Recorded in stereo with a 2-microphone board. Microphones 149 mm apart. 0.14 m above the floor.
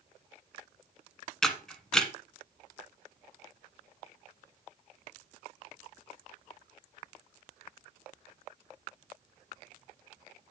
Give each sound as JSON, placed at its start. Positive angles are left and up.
{"t": 1.4, "sound": "a camera shutter", "side_deg": 5, "distance_m": 1.3}